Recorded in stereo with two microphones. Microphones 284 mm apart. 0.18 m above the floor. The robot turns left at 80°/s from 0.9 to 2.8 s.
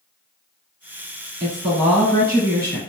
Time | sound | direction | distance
1.4 | a woman speaking | 135° right | 2.0 m